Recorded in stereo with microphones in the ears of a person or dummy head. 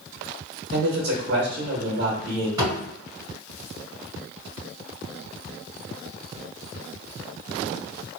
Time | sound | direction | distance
0.7 | a man speaking | 60° right (ahead or behind) | 1.1 m
2.6 | a thud | 15° right (ahead or behind) | 1.9 m